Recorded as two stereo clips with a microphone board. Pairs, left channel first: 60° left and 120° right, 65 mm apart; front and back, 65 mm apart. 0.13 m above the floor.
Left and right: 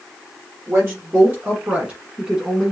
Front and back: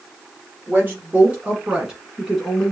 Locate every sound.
0.7 s a woman speaking: 140° right, 1.8 m; by 2.7 s 40° right, 1.3 m